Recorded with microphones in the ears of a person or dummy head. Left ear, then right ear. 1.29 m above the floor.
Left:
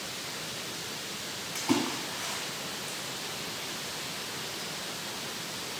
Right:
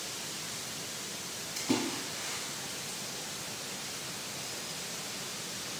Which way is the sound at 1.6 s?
55° left (ahead or behind).